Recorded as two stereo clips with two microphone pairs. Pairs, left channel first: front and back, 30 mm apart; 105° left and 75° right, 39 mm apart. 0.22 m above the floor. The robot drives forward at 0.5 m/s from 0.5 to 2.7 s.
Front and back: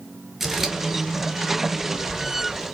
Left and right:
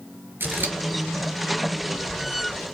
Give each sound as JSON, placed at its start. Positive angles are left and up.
{"t": 0.4, "sound": "scissors", "azimuth_deg": -95, "distance_m": 1.1}